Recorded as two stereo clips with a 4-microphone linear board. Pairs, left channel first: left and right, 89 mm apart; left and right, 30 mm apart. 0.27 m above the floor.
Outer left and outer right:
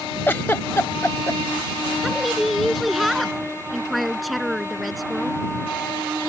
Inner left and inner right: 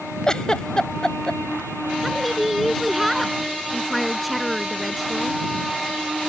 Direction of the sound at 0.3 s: 25° left (ahead or behind).